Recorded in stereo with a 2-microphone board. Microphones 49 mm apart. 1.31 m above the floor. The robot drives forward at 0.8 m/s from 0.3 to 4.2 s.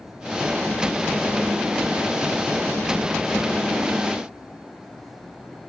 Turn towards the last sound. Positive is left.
No sound to turn to.